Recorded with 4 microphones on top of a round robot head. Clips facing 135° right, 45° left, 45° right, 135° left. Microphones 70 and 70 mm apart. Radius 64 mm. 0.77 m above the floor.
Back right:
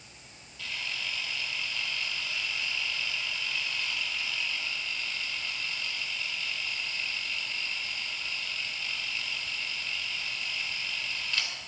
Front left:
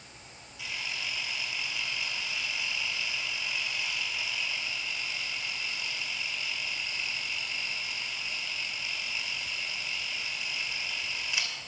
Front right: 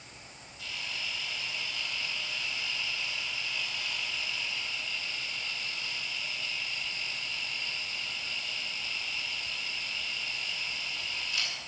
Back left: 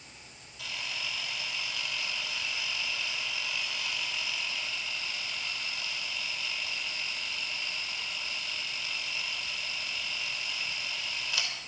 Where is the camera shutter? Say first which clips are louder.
Even, back left 1 dB; 125° left, 2.5 m.